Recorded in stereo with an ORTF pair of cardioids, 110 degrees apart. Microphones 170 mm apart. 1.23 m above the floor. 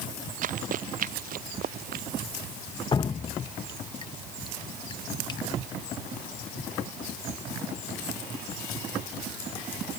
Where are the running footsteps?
55° right; by 2.0 s 60° right.